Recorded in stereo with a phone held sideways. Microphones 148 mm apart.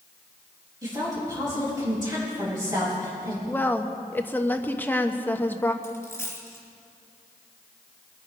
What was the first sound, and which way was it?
A woman speaking, 30° right (ahead or behind).